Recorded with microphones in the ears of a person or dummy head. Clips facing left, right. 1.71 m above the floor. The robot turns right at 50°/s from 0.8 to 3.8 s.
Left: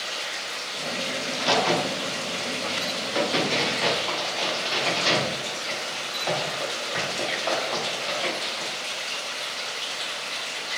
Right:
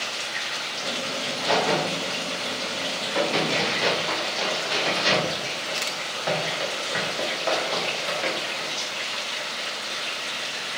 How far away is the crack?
About 0.7 m.